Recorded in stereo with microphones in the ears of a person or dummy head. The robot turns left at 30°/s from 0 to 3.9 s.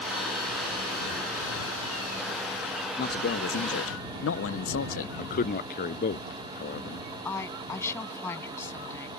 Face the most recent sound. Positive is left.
turn(degrees=20)  # may be behind; listen again after turning